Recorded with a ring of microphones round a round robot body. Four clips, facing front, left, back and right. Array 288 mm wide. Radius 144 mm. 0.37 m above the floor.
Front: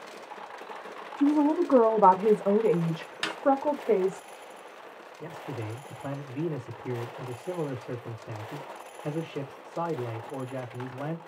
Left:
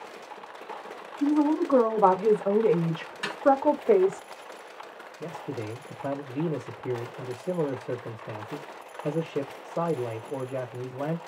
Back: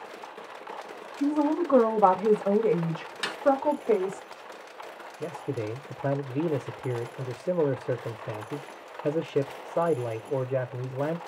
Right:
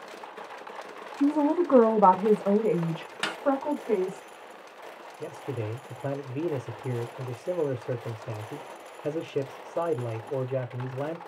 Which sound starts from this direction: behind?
A man speaking, at 5.2 s.